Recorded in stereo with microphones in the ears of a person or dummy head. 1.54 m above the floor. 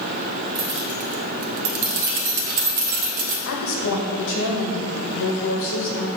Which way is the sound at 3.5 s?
80° left.